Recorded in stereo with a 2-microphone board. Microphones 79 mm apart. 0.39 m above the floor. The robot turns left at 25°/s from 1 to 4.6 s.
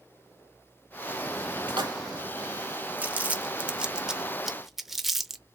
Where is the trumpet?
I don't hear a trumpet.